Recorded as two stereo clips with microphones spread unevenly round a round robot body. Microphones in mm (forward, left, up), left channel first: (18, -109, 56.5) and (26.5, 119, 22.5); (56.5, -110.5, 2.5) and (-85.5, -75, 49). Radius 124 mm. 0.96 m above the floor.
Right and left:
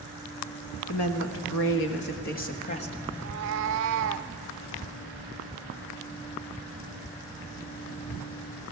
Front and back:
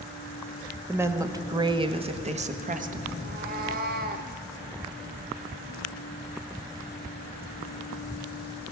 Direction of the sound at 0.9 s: 115° right.